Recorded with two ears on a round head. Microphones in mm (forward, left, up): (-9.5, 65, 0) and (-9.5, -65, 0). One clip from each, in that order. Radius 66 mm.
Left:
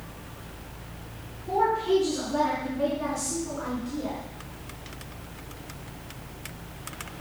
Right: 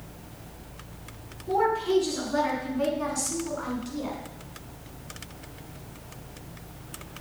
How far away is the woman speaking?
About 5.5 m.